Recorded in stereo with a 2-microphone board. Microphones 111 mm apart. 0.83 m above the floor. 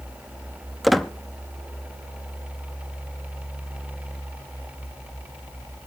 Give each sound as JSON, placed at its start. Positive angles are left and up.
{"t": 0.8, "sound": "a squeak", "side_deg": 0, "distance_m": 0.6}